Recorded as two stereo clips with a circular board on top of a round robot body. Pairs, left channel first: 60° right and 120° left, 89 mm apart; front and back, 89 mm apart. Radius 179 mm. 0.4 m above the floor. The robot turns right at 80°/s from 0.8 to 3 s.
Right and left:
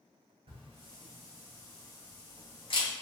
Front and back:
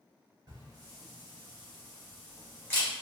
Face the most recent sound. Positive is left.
turn(degrees=-45)